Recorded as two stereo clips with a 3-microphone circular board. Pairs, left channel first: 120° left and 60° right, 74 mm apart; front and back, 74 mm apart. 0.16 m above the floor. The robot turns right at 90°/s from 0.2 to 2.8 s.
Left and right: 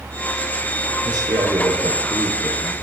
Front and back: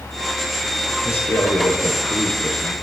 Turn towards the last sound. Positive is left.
turn(degrees=100)